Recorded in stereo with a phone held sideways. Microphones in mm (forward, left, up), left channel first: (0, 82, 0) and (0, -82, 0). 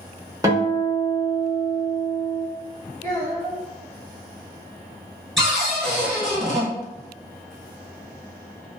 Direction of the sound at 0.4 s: 20° right (ahead or behind).